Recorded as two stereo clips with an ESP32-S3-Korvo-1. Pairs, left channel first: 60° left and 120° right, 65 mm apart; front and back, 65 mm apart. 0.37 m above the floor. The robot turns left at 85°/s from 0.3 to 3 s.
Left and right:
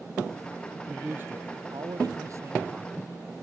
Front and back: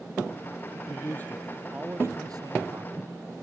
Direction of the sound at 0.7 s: 20° right.